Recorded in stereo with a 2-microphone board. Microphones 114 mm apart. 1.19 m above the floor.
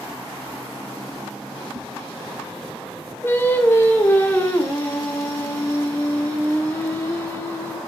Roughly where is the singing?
Left.